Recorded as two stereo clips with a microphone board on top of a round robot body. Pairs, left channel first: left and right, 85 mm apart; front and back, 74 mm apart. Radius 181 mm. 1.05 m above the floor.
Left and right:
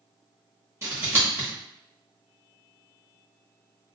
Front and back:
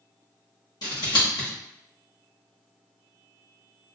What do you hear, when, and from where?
0.8 s scissors: 30° right, 1.2 m